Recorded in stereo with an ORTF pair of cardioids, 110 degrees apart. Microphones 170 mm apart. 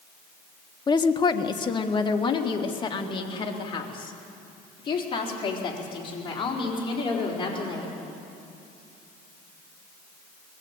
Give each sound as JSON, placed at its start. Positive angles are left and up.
{"t": 0.9, "sound": "a woman speaking", "azimuth_deg": 25, "distance_m": 1.1}